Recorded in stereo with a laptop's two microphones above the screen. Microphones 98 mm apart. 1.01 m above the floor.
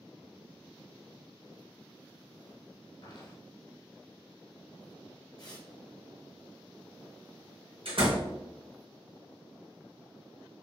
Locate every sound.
3.0 s footsteps: 45° left (ahead or behind), 1.7 m
5.4 s tearing paper: 40° left (ahead or behind), 1.0 m
7.8 s a door slam: 65° right (ahead or behind), 1.0 m